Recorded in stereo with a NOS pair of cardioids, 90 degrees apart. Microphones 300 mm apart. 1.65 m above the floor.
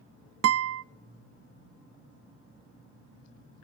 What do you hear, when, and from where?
0.4 s a guitar: 50° right, 0.6 m